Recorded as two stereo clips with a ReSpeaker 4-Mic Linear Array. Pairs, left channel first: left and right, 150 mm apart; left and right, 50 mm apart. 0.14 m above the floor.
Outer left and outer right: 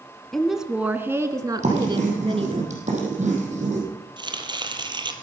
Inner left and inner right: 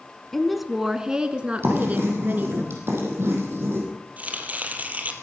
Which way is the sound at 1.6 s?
50° right (ahead or behind).